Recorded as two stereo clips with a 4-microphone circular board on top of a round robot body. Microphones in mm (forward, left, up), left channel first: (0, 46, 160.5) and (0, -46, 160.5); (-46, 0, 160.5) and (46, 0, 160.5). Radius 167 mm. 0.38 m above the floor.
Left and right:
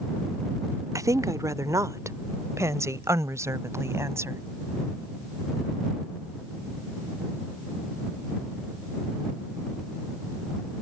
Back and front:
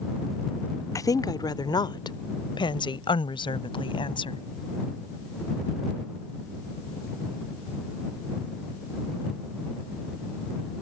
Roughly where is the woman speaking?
Behind right.